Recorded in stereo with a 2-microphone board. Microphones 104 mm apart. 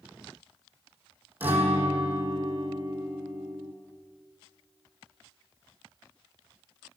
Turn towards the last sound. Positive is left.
turn(degrees=-15)  # may be behind; listen again after turning